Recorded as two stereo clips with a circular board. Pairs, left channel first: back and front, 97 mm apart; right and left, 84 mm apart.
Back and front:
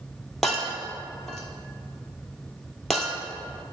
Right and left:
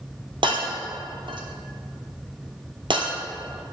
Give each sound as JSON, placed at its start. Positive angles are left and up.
{"t": 0.4, "sound": "breaking glass", "azimuth_deg": 90, "distance_m": 1.1}